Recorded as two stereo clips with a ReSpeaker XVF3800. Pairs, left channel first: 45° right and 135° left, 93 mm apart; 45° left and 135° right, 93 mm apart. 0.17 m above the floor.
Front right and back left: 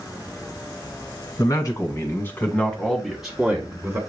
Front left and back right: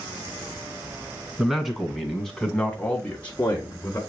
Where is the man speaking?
55° right, 1.5 m; by 4.0 s 90° left, 1.3 m.